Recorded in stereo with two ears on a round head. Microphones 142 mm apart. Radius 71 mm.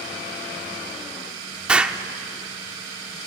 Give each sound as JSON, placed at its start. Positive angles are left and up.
{"t": 1.7, "sound": "an explosion", "side_deg": -5, "distance_m": 1.0}